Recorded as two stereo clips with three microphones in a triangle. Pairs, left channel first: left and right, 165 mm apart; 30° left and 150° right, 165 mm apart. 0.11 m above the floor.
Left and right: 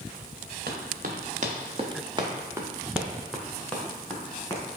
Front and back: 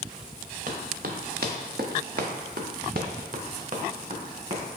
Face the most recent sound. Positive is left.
turn(degrees=165)